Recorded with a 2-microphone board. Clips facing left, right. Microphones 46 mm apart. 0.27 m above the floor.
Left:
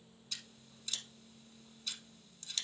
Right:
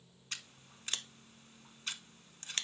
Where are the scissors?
50° right (ahead or behind), 0.6 m.